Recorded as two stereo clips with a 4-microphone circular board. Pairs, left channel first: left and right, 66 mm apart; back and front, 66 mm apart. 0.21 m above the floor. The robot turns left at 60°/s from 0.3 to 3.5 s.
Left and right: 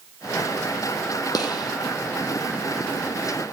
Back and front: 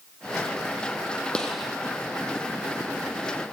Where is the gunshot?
105° left, 1.1 m; by 1.7 s 85° left, 1.1 m.